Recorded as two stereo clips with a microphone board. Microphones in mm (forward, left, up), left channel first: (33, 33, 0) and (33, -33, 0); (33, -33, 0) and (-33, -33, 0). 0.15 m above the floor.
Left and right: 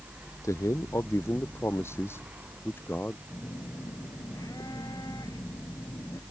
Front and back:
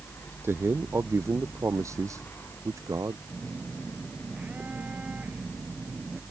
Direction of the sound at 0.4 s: 130° left.